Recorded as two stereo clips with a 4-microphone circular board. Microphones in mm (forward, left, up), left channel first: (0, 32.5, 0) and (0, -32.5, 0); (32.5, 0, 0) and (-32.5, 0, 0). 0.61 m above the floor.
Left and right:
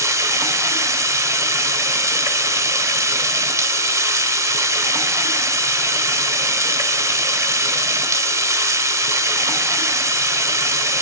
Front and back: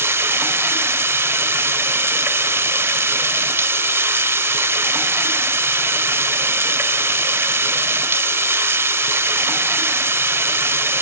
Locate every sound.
0.0 s running water: 125° right, 0.9 m